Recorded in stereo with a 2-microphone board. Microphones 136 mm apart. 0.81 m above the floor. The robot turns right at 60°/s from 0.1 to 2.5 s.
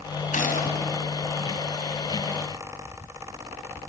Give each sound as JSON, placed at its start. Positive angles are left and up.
{"t": 0.3, "sound": "a gunshot", "azimuth_deg": 75, "distance_m": 2.5}